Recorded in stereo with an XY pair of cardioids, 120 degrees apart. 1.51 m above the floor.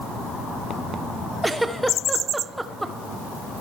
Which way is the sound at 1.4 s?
10° right.